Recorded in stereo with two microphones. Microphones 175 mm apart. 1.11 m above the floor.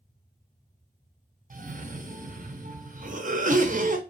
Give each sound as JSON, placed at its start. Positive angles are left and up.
{"t": 1.5, "sound": "a cough", "side_deg": -45, "distance_m": 0.6}